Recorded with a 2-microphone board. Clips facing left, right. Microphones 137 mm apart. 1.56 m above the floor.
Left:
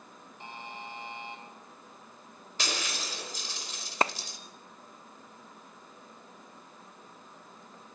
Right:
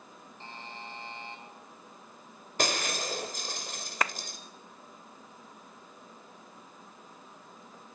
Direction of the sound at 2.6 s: 50° right (ahead or behind).